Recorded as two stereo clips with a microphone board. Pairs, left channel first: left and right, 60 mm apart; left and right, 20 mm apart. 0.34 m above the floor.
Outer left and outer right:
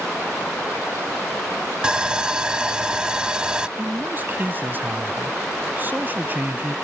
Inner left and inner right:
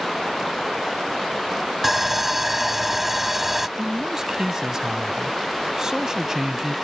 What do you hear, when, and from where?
1.8 s sawing: 15° right (ahead or behind)
3.8 s a man speaking: 35° right (ahead or behind)